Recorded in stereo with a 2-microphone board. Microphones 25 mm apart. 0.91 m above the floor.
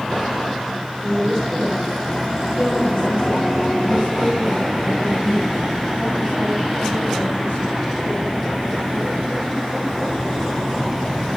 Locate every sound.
1.0 s a woman speaking: 35° left (ahead or behind), 4 m; by 9.2 s 80° left, 9.5 m